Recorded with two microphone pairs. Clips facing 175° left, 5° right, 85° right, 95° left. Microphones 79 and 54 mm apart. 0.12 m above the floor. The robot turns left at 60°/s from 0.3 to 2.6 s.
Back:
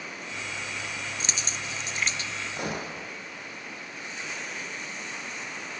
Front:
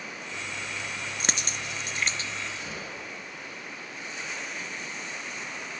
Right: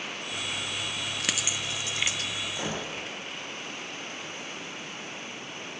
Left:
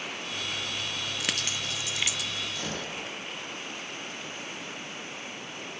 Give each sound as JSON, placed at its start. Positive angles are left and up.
{"t": 1.2, "sound": "a dropped coin", "azimuth_deg": 10, "distance_m": 0.5}
{"t": 2.5, "sound": "a gunshot", "azimuth_deg": -155, "distance_m": 3.0}